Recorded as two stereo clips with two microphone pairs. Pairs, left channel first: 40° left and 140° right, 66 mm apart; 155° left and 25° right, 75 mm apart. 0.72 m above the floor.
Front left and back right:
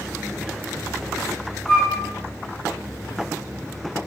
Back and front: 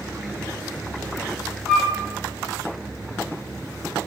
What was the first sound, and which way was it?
A flute, 65° left.